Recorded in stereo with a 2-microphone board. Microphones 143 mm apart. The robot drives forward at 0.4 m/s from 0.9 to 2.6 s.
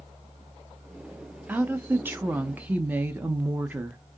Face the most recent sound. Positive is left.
turn(degrees=-15)  # may be behind; listen again after turning